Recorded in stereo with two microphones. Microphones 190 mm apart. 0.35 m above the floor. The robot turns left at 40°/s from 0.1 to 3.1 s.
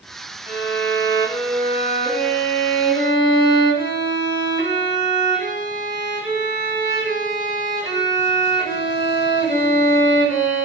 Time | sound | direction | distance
0.5 | a violin | 175° right | 0.8 m